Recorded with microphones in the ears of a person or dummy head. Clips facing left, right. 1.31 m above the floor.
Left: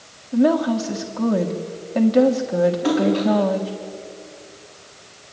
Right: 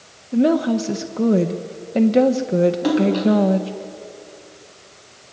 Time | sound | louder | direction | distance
0.3 | a woman speaking | right 1 dB | 30° right (ahead or behind) | 1.4 m
2.8 | a splash | right 1 dB | 60° right (ahead or behind) | 4.5 m